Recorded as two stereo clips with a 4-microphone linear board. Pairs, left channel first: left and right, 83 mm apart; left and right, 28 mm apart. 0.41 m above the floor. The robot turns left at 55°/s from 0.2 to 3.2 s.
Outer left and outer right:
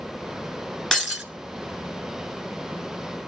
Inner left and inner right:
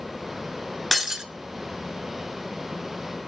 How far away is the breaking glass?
About 1.2 m.